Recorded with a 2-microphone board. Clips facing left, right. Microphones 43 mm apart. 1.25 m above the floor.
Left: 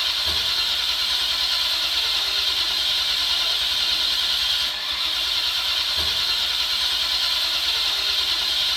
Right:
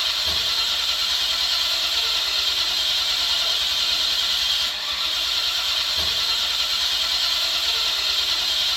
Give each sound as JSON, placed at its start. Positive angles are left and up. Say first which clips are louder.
{"t": 0.0, "sound": "an engine running", "louder": "even", "side_deg": 5, "distance_m": 1.0}